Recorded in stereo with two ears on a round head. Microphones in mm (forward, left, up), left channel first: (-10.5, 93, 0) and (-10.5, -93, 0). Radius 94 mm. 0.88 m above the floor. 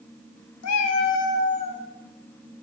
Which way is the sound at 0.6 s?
75° left (ahead or behind).